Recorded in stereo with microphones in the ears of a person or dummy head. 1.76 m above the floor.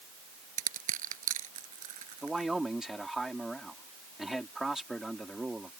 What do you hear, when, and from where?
0.6 s crushing: 50° right (ahead or behind)
2.2 s a man speaking: centre (ahead or behind)